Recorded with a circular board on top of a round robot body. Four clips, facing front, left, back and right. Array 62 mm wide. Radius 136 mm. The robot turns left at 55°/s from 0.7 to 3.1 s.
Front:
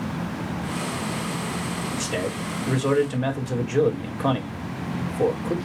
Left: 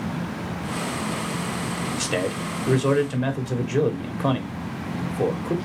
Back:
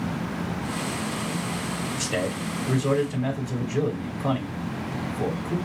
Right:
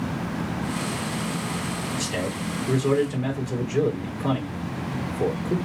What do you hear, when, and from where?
1.9 s a man speaking: 110° left, 2.5 m; by 5.5 s 45° left, 2.5 m